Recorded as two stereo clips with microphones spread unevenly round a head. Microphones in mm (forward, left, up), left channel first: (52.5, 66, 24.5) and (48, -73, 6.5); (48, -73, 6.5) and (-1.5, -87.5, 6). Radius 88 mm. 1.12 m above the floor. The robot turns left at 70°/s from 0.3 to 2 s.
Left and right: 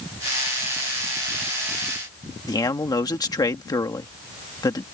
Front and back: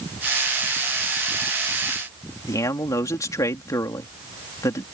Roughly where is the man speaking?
Ahead left.